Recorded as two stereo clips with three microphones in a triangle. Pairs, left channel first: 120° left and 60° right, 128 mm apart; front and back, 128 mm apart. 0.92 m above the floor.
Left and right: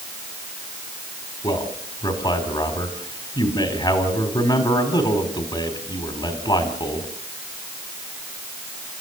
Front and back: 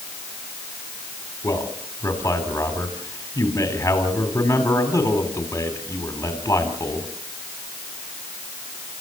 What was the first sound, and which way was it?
A man speaking, 70° left.